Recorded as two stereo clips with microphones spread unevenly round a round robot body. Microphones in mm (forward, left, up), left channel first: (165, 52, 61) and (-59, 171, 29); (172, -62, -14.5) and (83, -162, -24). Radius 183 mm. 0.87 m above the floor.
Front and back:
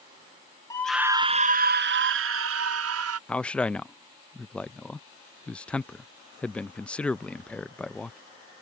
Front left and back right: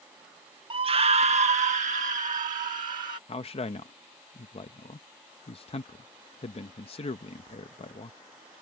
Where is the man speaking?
65° left.